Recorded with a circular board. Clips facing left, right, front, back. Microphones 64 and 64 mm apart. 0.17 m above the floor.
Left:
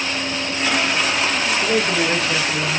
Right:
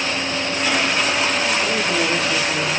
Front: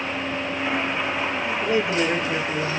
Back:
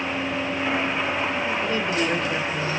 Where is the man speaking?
80° left, 2.0 m; by 2.8 s 55° left, 1.6 m.